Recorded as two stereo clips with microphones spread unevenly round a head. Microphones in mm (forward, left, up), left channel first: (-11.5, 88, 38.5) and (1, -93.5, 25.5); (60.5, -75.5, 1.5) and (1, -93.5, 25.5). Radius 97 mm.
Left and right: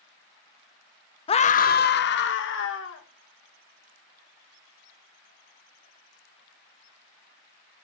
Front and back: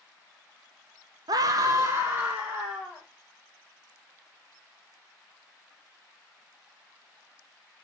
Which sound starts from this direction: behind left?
A scream, at 1.3 s.